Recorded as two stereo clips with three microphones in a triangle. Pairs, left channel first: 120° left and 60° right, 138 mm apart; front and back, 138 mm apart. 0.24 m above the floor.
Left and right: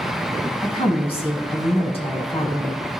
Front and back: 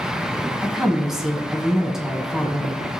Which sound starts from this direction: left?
A woman speaking, at 0.6 s.